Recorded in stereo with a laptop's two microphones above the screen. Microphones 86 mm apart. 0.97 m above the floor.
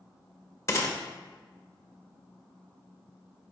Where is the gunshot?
35° left (ahead or behind), 1.7 m.